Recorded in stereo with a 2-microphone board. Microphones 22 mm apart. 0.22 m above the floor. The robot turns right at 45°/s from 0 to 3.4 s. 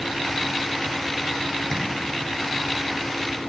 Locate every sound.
1.7 s tapping: 15° left (ahead or behind), 9.5 m; by 1.8 s 20° left (ahead or behind), 9.5 m